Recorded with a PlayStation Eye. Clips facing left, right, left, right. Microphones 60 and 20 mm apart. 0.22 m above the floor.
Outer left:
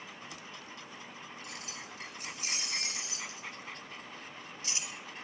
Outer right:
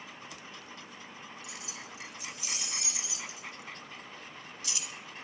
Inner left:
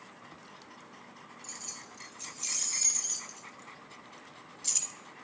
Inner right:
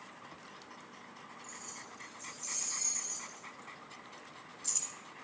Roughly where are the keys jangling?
Left.